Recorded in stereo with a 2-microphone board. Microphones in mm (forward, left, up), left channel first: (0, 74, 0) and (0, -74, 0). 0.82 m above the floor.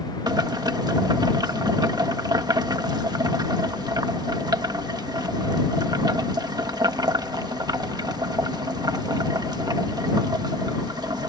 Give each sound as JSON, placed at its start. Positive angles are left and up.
{"t": 0.3, "sound": "boiling", "side_deg": -30}